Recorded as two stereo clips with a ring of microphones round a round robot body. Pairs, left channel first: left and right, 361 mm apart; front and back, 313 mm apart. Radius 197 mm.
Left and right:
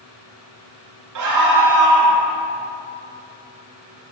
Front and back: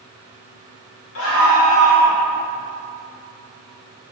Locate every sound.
1.1 s a scream: 50° right, 1.4 m